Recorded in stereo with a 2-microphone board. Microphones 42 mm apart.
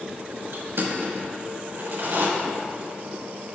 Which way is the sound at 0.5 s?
75° right (ahead or behind).